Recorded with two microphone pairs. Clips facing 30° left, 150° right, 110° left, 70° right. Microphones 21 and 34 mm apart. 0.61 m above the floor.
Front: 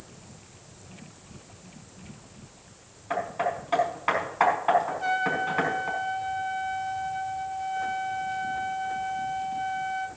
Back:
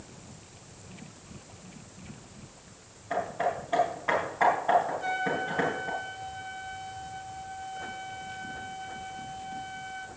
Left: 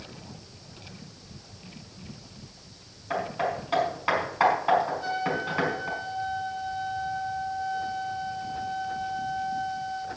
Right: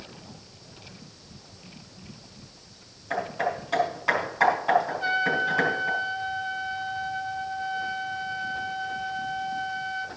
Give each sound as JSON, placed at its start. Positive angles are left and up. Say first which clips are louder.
{"t": 3.1, "sound": "hammering", "louder": "front 1 dB, right 1 dB", "azimuth_deg": 40, "distance_m": 5.5}
{"t": 4.9, "sound": "a trumpet", "louder": "front 3 dB, right 4 dB", "azimuth_deg": -30, "distance_m": 1.2}